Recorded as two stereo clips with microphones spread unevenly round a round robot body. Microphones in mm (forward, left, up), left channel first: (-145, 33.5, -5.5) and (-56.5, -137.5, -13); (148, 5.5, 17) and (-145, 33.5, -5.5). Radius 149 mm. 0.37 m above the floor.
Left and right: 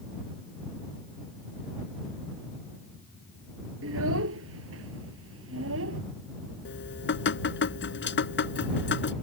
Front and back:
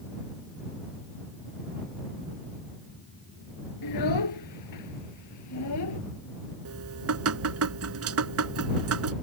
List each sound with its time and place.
3.8 s a child speaking: 30° right; by 6.0 s 45° right
6.7 s dripping: 135° left